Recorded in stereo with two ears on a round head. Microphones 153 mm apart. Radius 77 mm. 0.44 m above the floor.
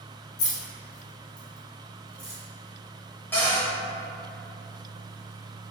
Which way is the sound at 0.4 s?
45° left (ahead or behind).